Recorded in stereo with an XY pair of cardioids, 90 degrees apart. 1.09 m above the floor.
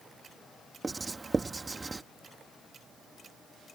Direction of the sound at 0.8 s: 30° right.